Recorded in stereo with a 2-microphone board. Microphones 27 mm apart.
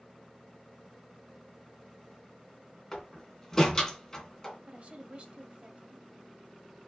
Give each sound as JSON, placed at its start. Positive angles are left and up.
{"t": 2.9, "sound": "a door slam", "side_deg": 15, "distance_m": 3.0}
{"t": 4.7, "sound": "a woman speaking", "side_deg": -50, "distance_m": 1.9}